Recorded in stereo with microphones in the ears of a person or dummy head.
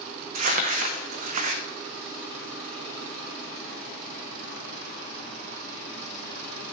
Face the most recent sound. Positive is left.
turn(degrees=-45)  # may be behind; listen again after turning